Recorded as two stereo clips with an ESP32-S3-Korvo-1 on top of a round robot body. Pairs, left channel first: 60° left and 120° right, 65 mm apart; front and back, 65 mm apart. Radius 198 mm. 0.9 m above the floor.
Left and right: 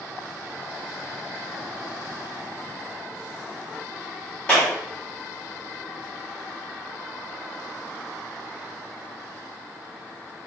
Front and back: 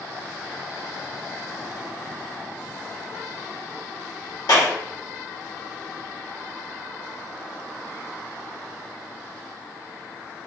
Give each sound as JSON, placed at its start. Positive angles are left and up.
{"t": 4.5, "sound": "a clap", "azimuth_deg": -15, "distance_m": 1.8}